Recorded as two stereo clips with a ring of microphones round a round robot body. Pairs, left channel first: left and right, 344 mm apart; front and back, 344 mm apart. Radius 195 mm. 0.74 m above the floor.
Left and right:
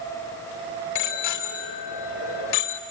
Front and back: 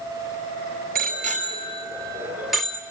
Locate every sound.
0.9 s a bicycle bell: 115° left, 2.5 m; by 2.8 s 85° left, 2.0 m